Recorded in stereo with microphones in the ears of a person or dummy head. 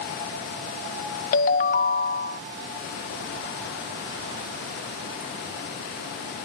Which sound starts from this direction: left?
A ringtone, at 1.3 s.